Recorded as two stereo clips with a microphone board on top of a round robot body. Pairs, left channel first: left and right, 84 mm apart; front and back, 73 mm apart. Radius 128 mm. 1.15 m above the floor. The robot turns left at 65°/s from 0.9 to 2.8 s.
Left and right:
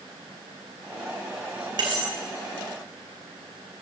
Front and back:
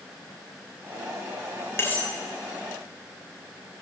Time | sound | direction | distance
1.8 | cutlery clinking | 55° right | 4 m